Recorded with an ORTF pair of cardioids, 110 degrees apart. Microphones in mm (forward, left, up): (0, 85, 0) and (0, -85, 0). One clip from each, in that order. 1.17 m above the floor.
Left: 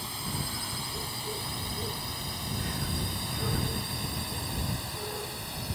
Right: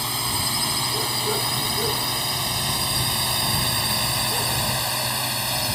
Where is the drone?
60° right; by 5.8 s 75° right.